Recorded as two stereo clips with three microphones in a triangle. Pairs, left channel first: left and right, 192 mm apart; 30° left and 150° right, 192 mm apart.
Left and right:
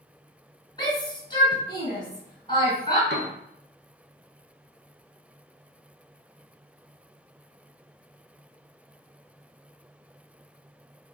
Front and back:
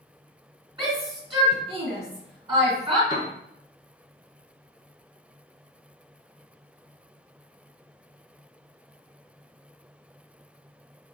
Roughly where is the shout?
Behind left.